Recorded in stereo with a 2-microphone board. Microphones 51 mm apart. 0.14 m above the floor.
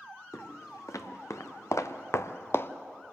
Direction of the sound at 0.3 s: 80° left.